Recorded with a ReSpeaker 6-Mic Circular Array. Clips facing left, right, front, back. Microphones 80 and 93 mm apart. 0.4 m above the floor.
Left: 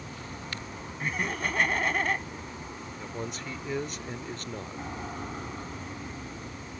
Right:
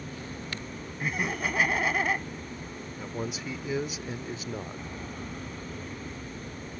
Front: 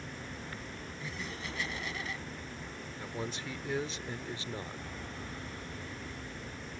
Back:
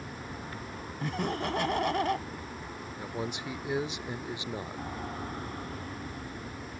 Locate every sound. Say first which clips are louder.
0.0 s an aircraft: right 2 dB, back 3 dB; 140° left
1.0 s laughter: right 1 dB, back 12 dB; 175° right
3.0 s a man speaking: right 3 dB, back 3 dB; 155° right